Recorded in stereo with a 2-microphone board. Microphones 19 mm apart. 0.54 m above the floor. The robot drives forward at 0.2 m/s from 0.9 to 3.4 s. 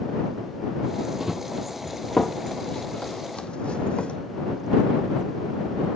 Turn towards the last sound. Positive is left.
turn(degrees=65)  # may be behind; listen again after turning